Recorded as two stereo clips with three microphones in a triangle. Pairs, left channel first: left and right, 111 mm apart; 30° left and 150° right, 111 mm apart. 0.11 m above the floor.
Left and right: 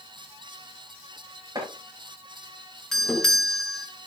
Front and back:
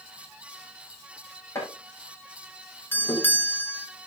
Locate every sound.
1.6 s chopping: 35° right, 6.5 m
2.9 s a doorbell: 15° left, 1.6 m